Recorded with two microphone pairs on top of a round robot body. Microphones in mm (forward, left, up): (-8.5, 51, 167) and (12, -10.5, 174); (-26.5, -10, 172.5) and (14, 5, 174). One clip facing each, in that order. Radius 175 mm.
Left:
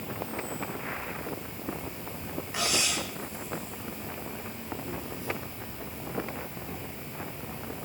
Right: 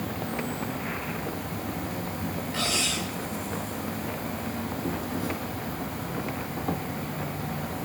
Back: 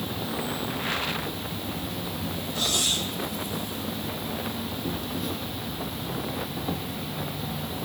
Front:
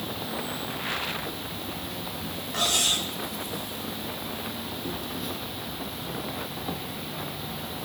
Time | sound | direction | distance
0.0 | an insect | 70° right | 1.3 m
2.5 | cutlery clinking | 35° left | 3.5 m